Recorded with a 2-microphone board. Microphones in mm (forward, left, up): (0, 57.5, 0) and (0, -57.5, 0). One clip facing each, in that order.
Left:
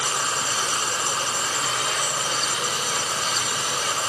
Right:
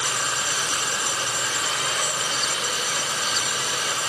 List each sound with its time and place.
0.0 s running water: 30° left (ahead or behind), 1.7 m